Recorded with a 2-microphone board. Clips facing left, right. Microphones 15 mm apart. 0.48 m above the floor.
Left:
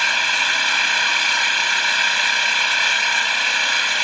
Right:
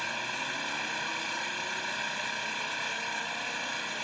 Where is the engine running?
70° left (ahead or behind).